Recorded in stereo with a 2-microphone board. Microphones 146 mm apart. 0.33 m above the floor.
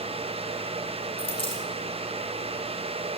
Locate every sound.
1.2 s a dropped coin: 40° left (ahead or behind), 2.0 m